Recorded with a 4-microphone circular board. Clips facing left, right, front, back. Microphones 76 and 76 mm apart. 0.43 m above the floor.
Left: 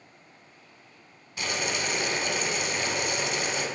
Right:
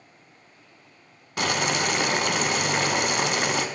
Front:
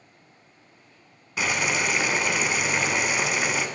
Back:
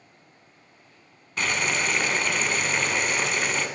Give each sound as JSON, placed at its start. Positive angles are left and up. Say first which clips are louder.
{"t": 1.4, "sound": "boiling", "louder": "right 6 dB, front 1 dB", "azimuth_deg": -80, "distance_m": 0.6}